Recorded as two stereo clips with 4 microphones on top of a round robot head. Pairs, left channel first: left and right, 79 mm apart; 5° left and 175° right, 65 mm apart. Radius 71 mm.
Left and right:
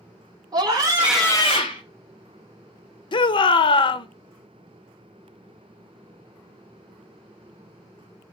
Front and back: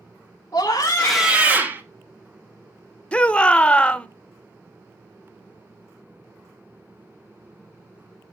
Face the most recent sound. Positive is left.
turn(degrees=75)